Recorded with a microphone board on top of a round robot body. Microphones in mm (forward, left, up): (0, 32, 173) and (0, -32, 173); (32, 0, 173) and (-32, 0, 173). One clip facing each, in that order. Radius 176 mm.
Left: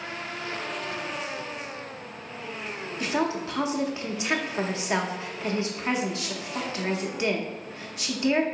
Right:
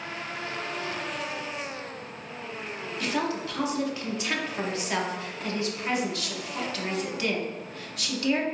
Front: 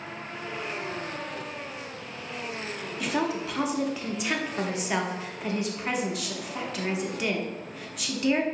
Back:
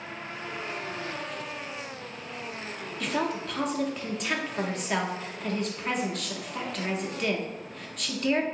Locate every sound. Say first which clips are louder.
3.0 s a woman speaking: left 2 dB, front 1 dB; 75° left, 1.0 m